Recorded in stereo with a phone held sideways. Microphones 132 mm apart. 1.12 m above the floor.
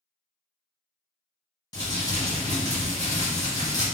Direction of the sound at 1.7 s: 30° left (ahead or behind).